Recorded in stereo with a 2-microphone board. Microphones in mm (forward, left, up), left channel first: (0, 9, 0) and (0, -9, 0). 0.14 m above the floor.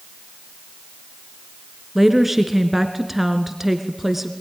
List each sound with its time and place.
1.9 s a woman speaking: 10° right (ahead or behind), 1.9 m